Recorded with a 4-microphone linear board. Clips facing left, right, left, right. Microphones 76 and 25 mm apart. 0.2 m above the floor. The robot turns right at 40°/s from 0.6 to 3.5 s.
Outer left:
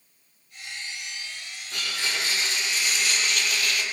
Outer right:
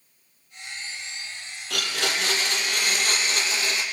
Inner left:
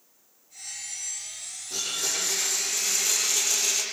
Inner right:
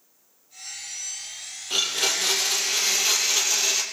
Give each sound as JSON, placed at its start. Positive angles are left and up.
{"t": 1.7, "sound": "a blender", "azimuth_deg": -100, "distance_m": 6.0}